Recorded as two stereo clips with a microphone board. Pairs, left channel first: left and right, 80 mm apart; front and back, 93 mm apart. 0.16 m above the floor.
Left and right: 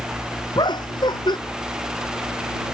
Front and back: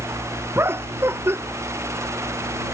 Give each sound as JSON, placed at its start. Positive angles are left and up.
{"t": 0.6, "sound": "laughter", "azimuth_deg": 115}